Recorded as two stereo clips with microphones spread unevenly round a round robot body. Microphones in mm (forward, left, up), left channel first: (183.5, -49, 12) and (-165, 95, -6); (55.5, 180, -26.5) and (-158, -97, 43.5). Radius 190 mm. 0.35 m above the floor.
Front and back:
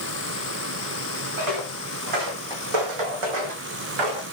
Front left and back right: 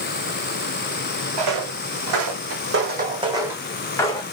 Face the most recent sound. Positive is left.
turn(degrees=135)